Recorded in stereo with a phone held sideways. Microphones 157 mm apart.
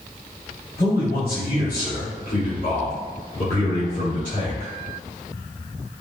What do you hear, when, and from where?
0.8 s a man speaking: 85° left, 1.9 m; by 4.7 s 50° left (ahead or behind), 3 m